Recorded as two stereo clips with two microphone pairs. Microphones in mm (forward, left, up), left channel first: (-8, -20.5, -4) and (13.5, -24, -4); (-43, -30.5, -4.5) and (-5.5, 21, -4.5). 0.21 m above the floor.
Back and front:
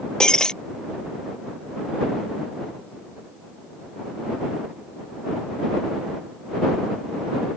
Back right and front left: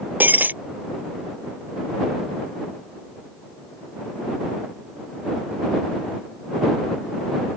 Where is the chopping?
I don't hear chopping.